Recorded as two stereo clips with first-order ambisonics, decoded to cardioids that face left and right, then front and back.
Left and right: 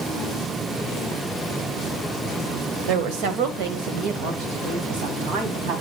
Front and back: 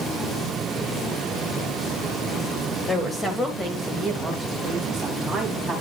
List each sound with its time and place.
2.9 s a woman speaking: 75° right, 1.9 m; by 5.8 s 90° right, 3.5 m